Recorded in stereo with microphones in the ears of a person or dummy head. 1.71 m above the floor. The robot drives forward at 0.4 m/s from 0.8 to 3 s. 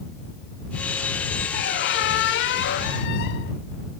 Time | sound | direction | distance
1.5 | a squeak | 60° left (ahead or behind) | 1.2 m